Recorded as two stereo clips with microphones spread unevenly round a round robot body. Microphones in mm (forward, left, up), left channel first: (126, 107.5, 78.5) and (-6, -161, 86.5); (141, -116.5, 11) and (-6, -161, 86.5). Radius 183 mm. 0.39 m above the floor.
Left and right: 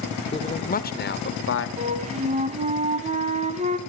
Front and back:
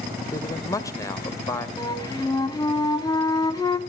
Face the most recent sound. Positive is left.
turn(degrees=-50)